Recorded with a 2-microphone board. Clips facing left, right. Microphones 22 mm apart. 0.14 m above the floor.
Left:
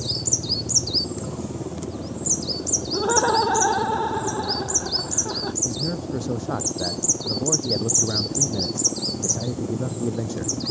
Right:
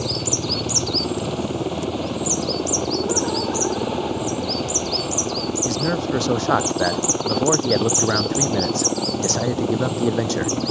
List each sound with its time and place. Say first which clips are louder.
0.0 s a helicopter: right 2 dB; 70° right (ahead or behind)
2.9 s laughter: left 7 dB; 45° left (ahead or behind)
5.7 s a man speaking: right 6 dB; 50° right (ahead or behind)